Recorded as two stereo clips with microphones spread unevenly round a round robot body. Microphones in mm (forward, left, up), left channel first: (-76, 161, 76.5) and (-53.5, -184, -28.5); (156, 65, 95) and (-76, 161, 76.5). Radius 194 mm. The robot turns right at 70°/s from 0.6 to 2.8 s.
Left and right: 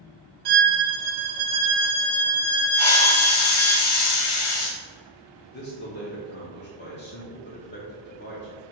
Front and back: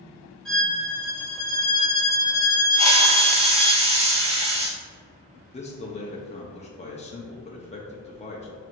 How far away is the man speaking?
About 0.8 m.